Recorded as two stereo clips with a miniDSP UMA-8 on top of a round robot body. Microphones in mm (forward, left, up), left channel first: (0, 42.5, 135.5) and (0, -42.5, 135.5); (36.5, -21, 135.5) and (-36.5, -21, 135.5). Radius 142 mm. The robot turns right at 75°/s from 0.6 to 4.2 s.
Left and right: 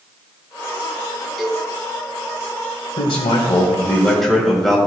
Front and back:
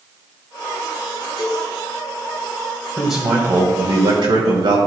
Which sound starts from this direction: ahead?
A cowbell, at 1.4 s.